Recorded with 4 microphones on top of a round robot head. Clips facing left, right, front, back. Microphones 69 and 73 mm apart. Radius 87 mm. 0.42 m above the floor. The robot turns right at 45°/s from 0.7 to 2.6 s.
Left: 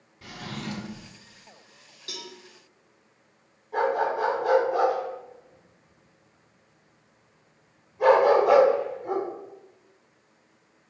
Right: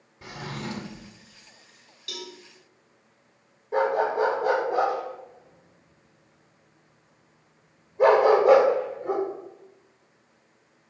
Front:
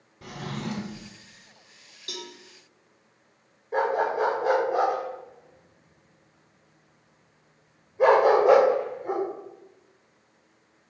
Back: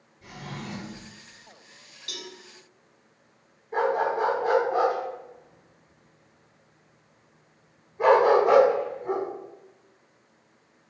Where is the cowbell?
45° left, 1.7 m; by 2.3 s 55° left, 1.7 m.